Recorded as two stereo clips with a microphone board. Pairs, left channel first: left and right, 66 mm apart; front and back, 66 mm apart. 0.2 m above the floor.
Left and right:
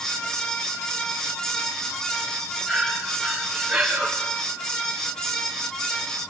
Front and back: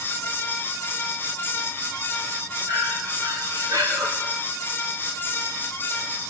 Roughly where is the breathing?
Behind.